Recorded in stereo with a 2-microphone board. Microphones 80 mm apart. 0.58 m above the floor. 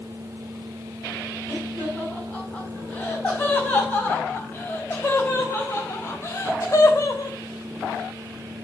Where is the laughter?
15° left (ahead or behind), 6.5 m; by 7.3 s 45° left (ahead or behind), 2.5 m.